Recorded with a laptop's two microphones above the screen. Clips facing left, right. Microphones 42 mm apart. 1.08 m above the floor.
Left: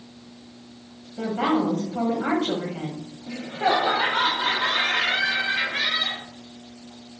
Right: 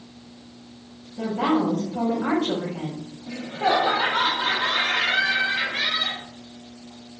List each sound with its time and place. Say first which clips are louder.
1.2 s a woman speaking: right 1 dB; 55° left (ahead or behind), 1.2 m
3.3 s laughter: even; 15° left (ahead or behind), 0.6 m